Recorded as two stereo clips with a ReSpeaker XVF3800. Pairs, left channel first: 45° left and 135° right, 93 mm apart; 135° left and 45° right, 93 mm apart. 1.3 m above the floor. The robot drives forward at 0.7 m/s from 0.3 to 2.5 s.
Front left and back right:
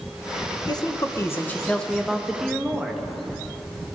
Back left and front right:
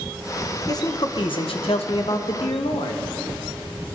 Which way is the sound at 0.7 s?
85° left.